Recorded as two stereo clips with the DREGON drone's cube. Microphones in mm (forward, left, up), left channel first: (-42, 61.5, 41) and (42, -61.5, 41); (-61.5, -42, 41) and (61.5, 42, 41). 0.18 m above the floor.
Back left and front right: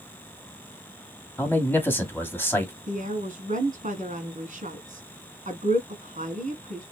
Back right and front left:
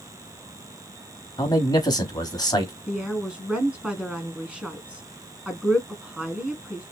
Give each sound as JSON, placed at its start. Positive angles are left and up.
{"t": 1.4, "sound": "a man speaking", "azimuth_deg": -175, "distance_m": 1.1}
{"t": 2.9, "sound": "a woman speaking", "azimuth_deg": -50, "distance_m": 1.8}